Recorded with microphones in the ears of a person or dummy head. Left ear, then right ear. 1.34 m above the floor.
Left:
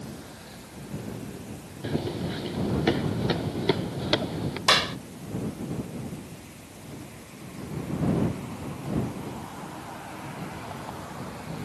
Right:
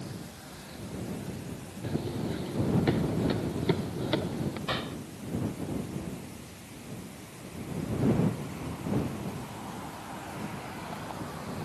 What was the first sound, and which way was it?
Running footsteps, 35° left (ahead or behind).